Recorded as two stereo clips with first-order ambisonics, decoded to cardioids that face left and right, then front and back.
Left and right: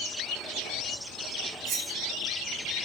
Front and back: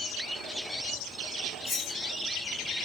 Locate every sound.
1.6 s cutlery clinking: 60° right, 1.2 m